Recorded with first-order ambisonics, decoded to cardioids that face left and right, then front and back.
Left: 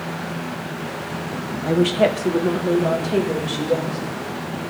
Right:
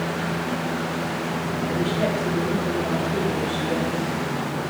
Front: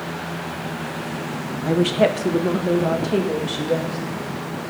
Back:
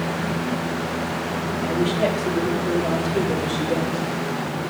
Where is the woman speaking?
45° left, 0.7 m; by 4.0 s 40° left, 2.5 m.